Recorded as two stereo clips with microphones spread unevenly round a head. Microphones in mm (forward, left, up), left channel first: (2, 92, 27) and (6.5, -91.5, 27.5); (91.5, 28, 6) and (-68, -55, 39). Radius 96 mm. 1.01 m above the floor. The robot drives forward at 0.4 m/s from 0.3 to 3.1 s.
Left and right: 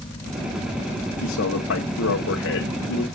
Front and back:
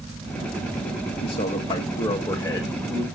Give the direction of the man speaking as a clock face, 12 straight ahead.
9 o'clock.